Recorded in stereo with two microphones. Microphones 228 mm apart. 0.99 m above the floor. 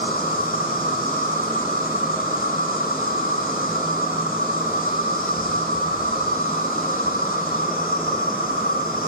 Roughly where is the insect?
Left.